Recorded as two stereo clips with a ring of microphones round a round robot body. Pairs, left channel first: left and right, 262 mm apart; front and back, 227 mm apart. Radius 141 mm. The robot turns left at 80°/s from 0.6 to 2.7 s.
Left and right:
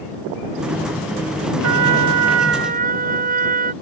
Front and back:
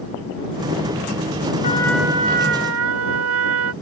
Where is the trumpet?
65° right; by 3.7 s 150° right.